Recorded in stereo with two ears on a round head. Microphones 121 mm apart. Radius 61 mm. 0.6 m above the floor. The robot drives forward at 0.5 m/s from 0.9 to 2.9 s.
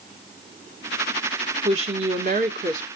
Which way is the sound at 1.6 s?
50° right (ahead or behind).